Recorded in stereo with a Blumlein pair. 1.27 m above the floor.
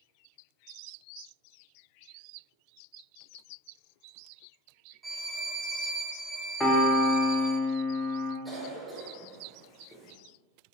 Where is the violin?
15° right, 0.5 m.